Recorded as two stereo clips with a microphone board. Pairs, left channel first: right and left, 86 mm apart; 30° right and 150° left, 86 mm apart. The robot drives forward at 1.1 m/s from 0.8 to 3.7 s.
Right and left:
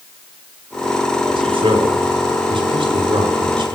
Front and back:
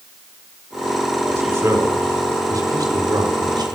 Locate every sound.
1.3 s a man speaking: 85° left, 5.5 m; by 3.8 s 115° left, 6 m